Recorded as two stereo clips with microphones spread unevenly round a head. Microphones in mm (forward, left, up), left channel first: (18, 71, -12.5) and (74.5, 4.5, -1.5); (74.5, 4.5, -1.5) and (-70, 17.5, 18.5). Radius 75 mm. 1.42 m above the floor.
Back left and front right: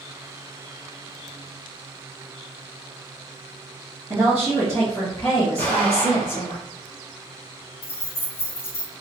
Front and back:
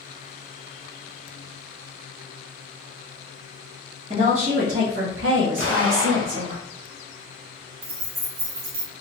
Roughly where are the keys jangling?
Behind.